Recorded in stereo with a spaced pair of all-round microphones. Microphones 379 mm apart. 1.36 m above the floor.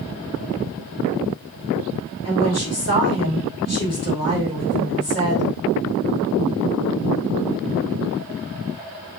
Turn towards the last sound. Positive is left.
turn(degrees=40)  # may be behind; listen again after turning